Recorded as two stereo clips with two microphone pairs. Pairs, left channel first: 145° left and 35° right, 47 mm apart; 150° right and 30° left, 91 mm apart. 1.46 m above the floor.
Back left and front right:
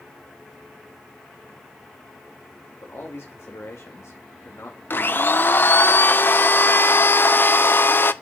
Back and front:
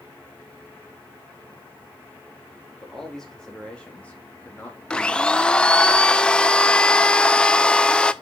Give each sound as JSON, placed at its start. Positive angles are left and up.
{"t": 2.8, "sound": "a man speaking", "azimuth_deg": 120, "distance_m": 2.5}
{"t": 4.9, "sound": "a blender", "azimuth_deg": 130, "distance_m": 0.5}